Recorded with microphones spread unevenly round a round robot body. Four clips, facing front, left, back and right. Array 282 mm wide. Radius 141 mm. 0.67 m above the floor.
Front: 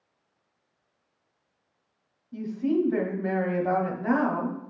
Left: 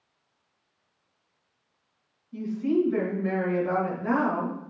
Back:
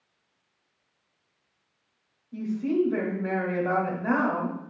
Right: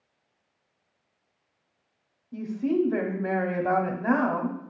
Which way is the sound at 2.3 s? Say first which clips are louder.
Left 1 dB, even; 80° right.